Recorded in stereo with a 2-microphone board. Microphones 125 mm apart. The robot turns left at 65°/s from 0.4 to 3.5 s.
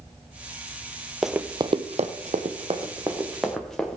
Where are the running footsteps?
Centre (ahead or behind), 0.5 m; by 4.0 s 5° left (ahead or behind), 2 m.